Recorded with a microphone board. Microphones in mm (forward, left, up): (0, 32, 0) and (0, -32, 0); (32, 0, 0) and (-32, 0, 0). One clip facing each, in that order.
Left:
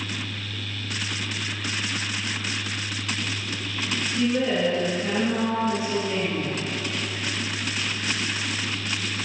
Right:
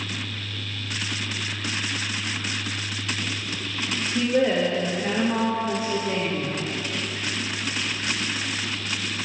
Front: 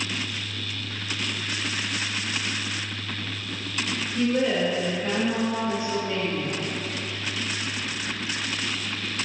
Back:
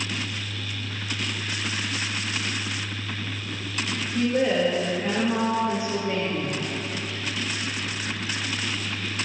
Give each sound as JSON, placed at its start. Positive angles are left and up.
{"t": 4.2, "sound": "a woman speaking", "azimuth_deg": -115, "distance_m": 0.7}